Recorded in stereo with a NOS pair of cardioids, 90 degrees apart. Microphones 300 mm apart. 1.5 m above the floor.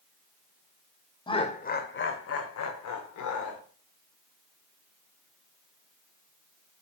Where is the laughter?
15° left, 0.9 m; by 3.6 s 80° left, 1.3 m.